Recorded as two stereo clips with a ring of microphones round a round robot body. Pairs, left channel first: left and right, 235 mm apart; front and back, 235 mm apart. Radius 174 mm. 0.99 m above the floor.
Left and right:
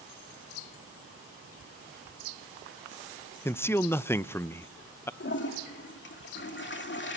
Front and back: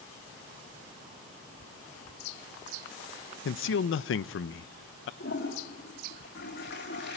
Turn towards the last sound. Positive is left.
turn(degrees=55)